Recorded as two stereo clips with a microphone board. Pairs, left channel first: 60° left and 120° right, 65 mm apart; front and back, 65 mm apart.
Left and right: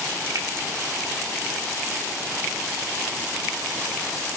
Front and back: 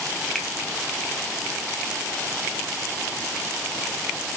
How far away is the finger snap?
About 1.4 m.